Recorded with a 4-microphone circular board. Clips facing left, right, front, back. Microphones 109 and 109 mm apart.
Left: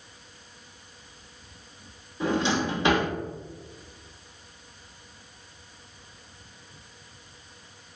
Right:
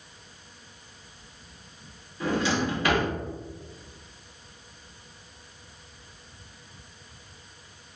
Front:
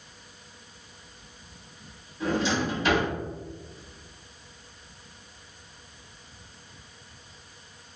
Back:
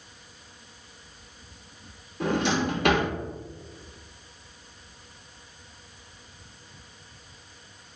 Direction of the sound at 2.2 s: 160° left.